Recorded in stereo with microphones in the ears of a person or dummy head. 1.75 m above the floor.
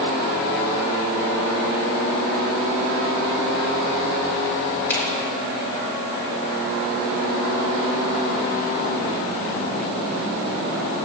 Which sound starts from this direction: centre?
A finger snap, at 4.9 s.